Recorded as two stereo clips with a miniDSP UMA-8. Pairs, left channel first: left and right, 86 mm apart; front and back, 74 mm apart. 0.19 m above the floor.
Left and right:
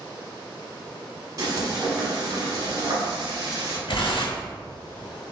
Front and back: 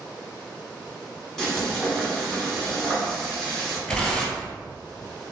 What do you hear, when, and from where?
1.4 s frying: 80° right, 1.3 m
3.9 s tearing paper: 75° left, 0.8 m